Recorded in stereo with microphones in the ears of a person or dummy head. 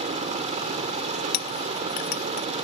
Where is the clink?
60° left (ahead or behind).